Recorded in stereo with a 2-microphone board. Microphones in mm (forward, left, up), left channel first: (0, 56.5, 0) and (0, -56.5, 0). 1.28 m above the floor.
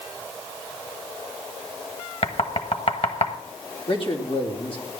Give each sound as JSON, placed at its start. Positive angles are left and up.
{"t": 2.2, "sound": "knocking", "side_deg": 60, "distance_m": 1.1}
{"t": 3.9, "sound": "a man speaking", "side_deg": 50, "distance_m": 3.0}